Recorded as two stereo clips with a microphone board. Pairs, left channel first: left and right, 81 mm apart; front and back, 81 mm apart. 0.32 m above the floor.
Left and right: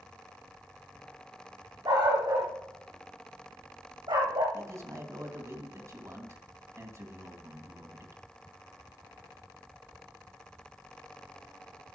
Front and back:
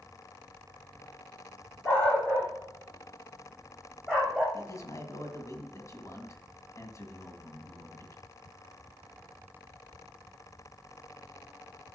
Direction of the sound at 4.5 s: 45° right.